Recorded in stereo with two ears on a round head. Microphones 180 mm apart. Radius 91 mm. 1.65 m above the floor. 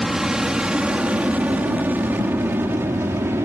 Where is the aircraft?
Centre (ahead or behind); by 3.5 s 10° right (ahead or behind).